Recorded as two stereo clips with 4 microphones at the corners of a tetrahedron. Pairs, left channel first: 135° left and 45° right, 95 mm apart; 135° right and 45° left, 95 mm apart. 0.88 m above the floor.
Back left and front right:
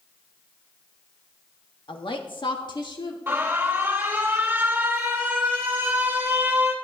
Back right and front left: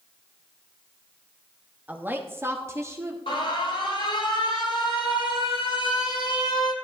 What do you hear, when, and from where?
1.9 s a woman speaking: 120° left, 1.1 m; by 3.2 s 105° left, 2.5 m
3.3 s an alarm: 115° right, 3 m